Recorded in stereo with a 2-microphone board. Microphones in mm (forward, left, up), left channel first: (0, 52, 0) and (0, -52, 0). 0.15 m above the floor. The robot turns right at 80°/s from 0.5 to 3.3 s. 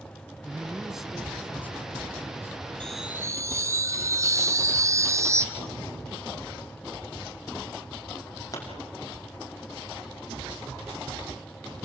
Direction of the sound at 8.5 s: 30° left (ahead or behind).